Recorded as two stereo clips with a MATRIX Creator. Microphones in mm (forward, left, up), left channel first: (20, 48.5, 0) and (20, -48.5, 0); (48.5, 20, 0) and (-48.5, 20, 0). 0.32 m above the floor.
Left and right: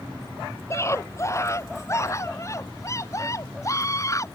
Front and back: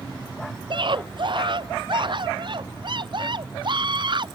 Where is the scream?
150° left; by 4.3 s 145° left.